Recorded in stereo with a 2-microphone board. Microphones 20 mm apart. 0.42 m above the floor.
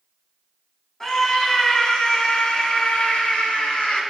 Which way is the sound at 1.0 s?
25° left (ahead or behind).